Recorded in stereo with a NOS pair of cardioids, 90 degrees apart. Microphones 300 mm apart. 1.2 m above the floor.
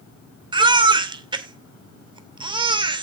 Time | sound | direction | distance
0.5 | a baby crying | 15° right | 2.5 m